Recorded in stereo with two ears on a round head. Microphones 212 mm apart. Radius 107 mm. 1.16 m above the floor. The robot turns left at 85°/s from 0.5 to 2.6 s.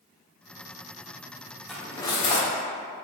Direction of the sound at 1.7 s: Centre (ahead or behind).